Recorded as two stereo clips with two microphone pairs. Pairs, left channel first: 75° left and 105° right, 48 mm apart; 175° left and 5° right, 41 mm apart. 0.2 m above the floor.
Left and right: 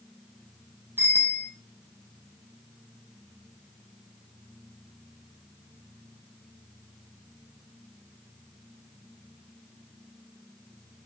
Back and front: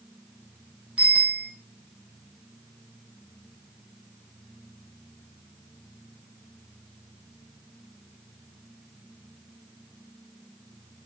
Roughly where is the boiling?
No boiling in this recording.